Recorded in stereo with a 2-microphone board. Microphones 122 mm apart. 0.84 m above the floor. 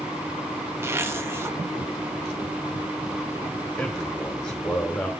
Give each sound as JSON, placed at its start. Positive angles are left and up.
{"t": 0.8, "sound": "a zipper", "side_deg": -20, "distance_m": 1.2}
{"t": 3.8, "sound": "a man speaking", "side_deg": 10, "distance_m": 2.5}